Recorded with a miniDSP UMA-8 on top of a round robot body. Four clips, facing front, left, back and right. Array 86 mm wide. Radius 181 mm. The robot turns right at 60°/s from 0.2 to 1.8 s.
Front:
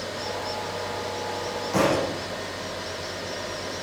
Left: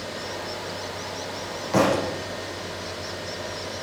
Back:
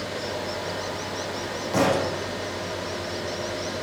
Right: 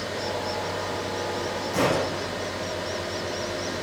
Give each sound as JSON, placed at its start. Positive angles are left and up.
{"t": 1.7, "sound": "a thud", "azimuth_deg": 85, "distance_m": 9.5}